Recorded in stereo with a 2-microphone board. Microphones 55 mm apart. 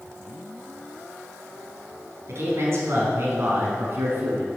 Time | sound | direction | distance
2.3 | a man speaking | 55° right (ahead or behind) | 3.5 m